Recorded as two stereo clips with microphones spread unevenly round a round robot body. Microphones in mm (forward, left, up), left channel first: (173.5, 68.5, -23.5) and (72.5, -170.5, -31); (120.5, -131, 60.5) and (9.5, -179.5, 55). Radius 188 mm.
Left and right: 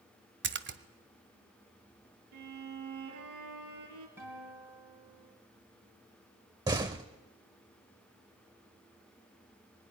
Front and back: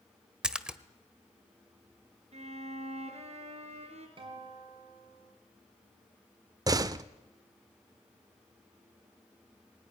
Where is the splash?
75° right, 1.4 m.